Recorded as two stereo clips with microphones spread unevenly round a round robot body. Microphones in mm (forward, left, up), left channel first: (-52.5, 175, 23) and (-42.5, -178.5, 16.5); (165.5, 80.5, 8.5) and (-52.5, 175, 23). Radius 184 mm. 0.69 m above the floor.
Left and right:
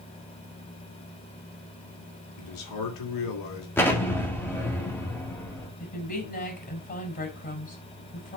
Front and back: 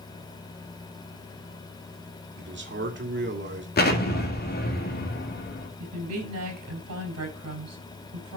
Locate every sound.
2.4 s a man speaking: 120° left, 2.5 m
3.8 s an explosion: 10° left, 1.8 m
5.8 s a woman speaking: 160° left, 4.5 m